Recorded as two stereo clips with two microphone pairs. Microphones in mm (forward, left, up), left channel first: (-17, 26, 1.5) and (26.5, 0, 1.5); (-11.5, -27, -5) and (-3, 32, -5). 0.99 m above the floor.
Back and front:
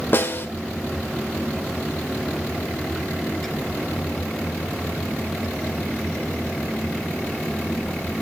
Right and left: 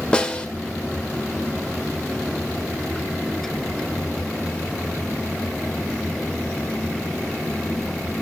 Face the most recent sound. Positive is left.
turn(degrees=-170)